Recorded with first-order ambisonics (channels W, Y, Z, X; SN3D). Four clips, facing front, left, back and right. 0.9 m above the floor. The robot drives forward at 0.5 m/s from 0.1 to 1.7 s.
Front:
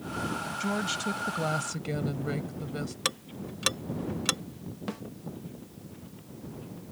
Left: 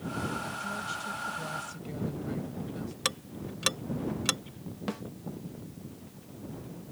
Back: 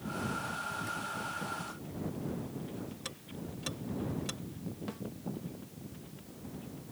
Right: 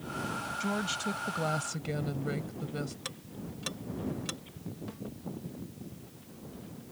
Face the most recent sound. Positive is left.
turn(degrees=60)